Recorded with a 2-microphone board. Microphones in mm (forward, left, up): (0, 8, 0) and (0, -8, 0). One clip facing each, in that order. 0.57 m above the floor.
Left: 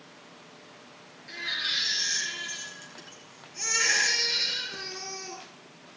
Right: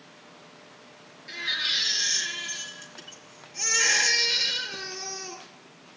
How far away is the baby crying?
About 3.5 m.